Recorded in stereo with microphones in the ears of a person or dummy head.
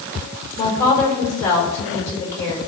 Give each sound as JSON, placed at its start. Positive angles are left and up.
{"t": 0.6, "sound": "a woman speaking", "side_deg": 10, "distance_m": 5.0}